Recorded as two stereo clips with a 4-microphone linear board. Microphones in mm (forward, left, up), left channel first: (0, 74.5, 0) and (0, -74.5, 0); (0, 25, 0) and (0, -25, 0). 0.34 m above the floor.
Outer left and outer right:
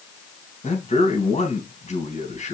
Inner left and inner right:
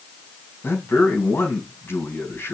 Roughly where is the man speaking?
Left.